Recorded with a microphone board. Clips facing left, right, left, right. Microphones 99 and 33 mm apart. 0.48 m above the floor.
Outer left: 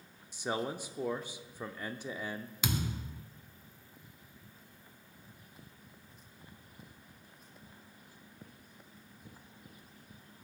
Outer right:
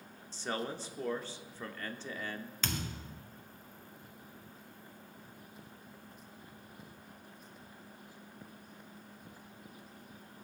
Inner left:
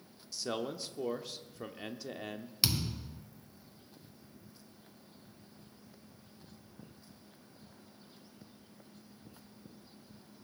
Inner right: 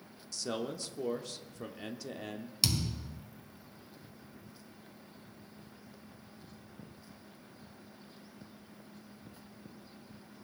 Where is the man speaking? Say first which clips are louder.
Outer left 2 dB, even; 15° left (ahead or behind), 0.7 m.